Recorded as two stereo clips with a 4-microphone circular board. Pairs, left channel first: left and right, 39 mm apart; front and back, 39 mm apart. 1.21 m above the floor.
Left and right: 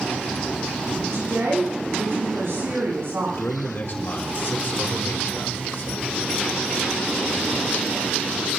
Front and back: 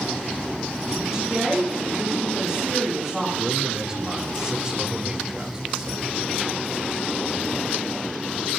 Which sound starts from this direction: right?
A woman speaking, at 1.0 s.